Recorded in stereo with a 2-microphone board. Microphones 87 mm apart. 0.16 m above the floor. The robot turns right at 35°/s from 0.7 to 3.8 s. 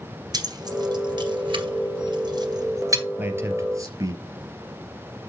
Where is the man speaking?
20° right (ahead or behind), 2.5 m; by 4.2 s 40° right (ahead or behind), 2.5 m.